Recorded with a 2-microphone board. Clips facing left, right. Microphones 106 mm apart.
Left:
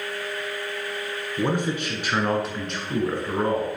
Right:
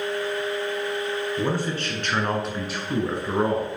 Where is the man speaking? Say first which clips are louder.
Left 6 dB; 20° left (ahead or behind), 1.8 m; by 3.7 s 25° right (ahead or behind), 1.7 m.